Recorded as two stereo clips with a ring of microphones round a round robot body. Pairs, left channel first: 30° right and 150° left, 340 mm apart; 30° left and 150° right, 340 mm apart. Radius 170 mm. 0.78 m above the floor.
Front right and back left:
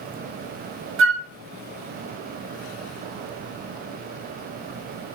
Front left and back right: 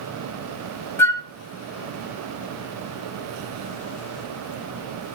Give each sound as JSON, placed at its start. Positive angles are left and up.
{"t": 1.0, "sound": "a flute", "azimuth_deg": 110, "distance_m": 1.5}